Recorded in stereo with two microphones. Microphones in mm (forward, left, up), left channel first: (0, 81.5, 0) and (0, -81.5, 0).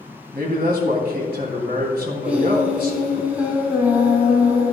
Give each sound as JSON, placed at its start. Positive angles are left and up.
{"t": 0.3, "sound": "a man speaking", "side_deg": -70, "distance_m": 2.5}
{"t": 2.2, "sound": "singing", "side_deg": -10, "distance_m": 2.0}